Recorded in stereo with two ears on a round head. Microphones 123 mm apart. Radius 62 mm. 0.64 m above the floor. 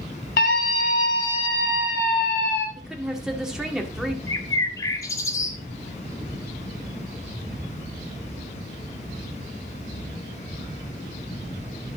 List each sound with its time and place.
0.4 s a scream: 75° left (ahead or behind), 4 m; by 2.7 s 80° left, 5.5 m
2.8 s a woman speaking: 5° right (ahead or behind), 1.9 m
4.3 s a bird: 25° left (ahead or behind), 1.2 m